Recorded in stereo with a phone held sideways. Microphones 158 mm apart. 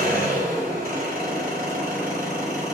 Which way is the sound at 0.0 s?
80° right.